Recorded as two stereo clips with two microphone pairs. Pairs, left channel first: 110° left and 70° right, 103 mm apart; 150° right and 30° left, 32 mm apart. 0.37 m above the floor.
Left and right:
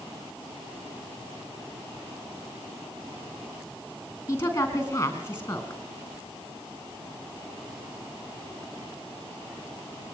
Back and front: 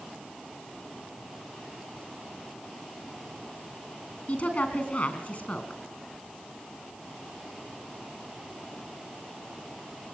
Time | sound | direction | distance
4.3 | a woman speaking | straight behind | 4 m